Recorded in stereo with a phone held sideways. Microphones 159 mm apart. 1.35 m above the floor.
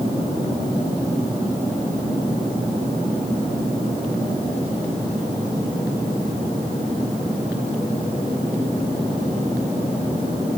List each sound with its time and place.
Only background noise.